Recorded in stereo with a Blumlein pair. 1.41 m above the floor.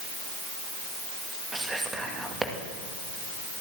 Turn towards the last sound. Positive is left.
turn(degrees=-10)